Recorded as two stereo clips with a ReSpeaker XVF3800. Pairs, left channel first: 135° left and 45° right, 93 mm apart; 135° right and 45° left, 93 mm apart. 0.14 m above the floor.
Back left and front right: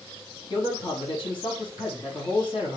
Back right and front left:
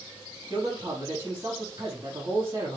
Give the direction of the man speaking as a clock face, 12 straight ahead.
8 o'clock.